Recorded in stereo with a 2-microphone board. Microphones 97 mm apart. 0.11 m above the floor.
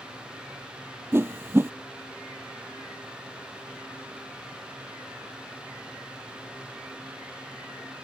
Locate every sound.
1.1 s a whoosh: 25° right (ahead or behind)